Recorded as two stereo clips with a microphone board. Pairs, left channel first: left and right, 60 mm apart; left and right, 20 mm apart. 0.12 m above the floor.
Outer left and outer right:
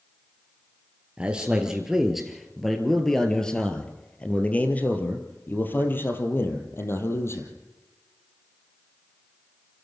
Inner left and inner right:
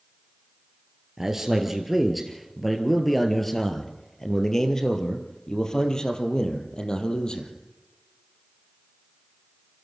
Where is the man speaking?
15° right (ahead or behind), 2.5 m; by 7.5 s 45° left (ahead or behind), 3.5 m.